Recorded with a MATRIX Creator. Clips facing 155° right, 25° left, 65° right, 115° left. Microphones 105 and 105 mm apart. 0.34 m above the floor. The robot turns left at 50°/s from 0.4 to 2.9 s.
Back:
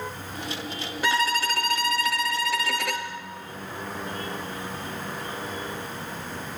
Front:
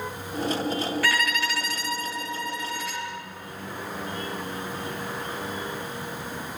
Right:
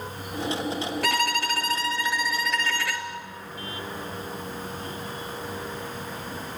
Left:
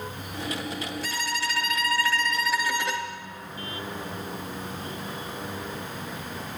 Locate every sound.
1.0 s a violin: 90° right, 2 m; by 3.1 s straight behind, 2 m